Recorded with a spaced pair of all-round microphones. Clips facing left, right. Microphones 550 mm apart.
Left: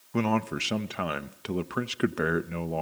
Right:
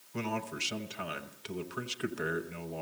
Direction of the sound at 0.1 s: 75° left (ahead or behind).